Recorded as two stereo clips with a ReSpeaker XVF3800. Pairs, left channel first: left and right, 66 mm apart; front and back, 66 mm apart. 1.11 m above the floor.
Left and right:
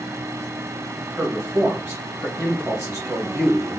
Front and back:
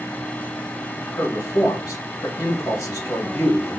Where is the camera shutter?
I don't hear a camera shutter.